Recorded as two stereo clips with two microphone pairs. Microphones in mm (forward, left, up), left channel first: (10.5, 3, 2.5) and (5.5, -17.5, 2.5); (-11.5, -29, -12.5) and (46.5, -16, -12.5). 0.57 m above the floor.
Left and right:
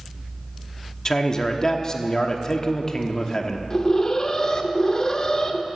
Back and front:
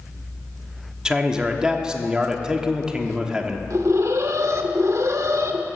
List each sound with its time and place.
1.1 s a man speaking: 75° left, 1.0 m
3.7 s an alarm: 25° left, 0.9 m